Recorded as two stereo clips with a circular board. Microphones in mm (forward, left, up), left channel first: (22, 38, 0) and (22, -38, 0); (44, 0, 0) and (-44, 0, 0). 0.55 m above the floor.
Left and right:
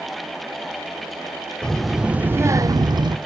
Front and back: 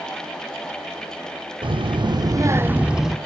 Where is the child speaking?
170° left, 0.7 m; by 3.2 s 90° right, 0.7 m.